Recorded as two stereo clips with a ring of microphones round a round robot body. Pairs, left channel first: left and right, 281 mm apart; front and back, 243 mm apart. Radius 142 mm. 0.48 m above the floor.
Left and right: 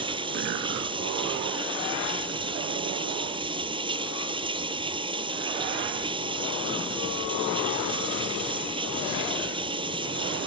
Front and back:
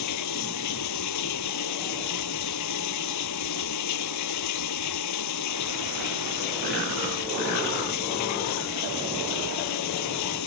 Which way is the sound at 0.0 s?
15° right.